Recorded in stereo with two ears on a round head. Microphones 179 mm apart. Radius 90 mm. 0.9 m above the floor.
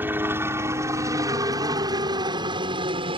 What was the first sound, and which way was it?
A helicopter, 10° right (ahead or behind).